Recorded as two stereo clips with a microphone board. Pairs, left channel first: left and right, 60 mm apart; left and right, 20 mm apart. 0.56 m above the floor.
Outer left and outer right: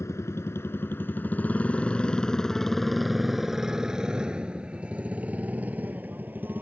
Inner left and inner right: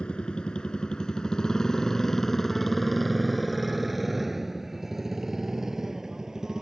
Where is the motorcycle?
50° left (ahead or behind); by 6.6 s 30° right (ahead or behind).